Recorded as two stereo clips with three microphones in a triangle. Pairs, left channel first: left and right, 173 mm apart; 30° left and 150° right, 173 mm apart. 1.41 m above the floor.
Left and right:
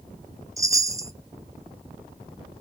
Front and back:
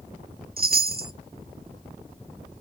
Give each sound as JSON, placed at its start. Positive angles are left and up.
{"t": 0.6, "sound": "a chime", "azimuth_deg": -160, "distance_m": 0.6}